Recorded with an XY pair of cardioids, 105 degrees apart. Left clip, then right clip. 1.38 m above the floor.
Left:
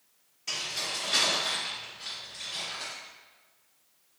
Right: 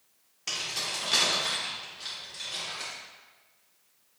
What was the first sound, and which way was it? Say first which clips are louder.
Keys jangling: right 1 dB; 70° right.